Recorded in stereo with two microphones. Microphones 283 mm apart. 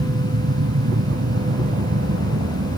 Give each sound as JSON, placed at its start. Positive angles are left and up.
{"t": 0.0, "sound": "an aircraft", "side_deg": -60}